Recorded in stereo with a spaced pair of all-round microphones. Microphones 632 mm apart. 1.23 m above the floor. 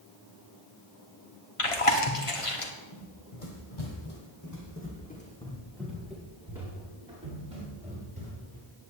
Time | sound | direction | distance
1.6 | chewing | 55° left (ahead or behind) | 1.5 m
2.9 | running footsteps | 60° left (ahead or behind) | 2.5 m